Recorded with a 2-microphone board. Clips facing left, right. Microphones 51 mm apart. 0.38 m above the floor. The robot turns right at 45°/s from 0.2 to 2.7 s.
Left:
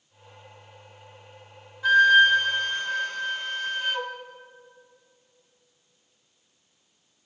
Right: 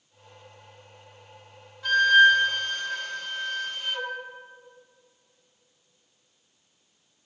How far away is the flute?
About 1.4 m.